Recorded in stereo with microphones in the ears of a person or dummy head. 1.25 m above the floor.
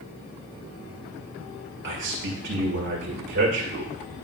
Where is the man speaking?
55° right (ahead or behind), 2 m.